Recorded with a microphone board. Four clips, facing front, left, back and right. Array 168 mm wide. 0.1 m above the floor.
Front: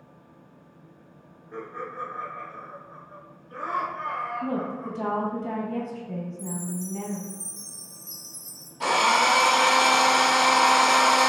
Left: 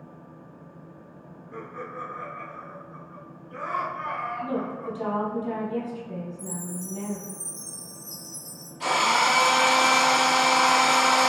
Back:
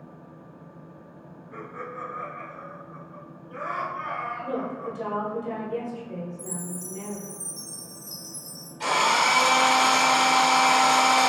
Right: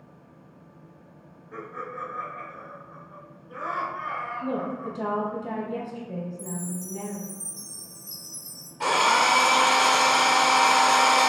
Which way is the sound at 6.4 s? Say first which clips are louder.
Right 1 dB, front 3 dB; 145° right.